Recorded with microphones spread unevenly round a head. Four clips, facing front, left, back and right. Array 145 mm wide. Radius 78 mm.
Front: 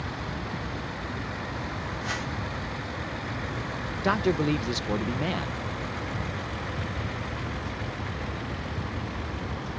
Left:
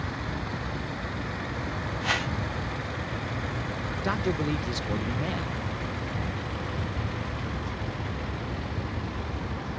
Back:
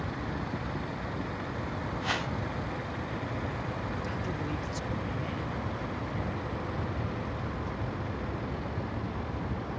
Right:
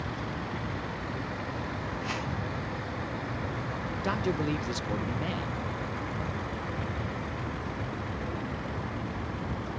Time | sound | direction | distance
2.0 | a whoosh | 105° left | ?
4.0 | a man speaking | straight ahead | ?